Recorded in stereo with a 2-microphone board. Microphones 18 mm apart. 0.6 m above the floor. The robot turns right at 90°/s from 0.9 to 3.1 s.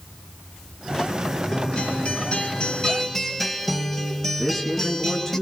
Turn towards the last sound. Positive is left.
turn(degrees=15)  # may be behind; listen again after turning